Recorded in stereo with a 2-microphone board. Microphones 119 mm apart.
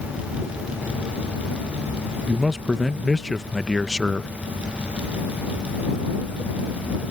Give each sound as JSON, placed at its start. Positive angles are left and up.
{"t": 2.3, "sound": "a man speaking", "side_deg": 0}